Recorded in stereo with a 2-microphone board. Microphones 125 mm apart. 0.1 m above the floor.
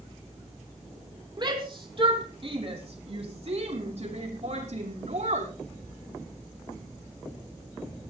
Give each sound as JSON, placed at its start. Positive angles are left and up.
{"t": 1.4, "sound": "a shout", "side_deg": -35, "distance_m": 4.0}